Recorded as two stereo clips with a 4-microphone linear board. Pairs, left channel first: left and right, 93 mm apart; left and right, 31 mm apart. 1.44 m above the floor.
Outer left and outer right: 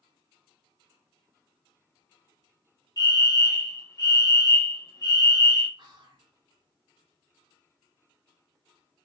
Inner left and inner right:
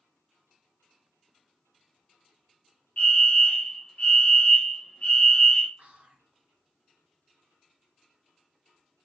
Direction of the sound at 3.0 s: 45° left (ahead or behind).